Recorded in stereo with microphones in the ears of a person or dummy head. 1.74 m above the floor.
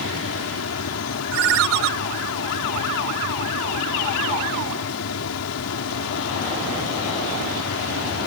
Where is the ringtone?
65° right (ahead or behind).